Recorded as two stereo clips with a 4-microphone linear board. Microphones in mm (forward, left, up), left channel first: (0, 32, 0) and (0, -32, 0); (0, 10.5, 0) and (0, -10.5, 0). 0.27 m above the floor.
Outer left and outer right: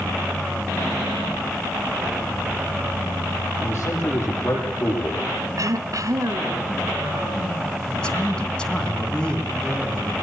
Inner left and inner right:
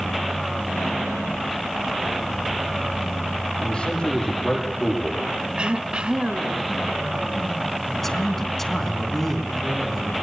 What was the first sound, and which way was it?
A man speaking, 40° left (ahead or behind).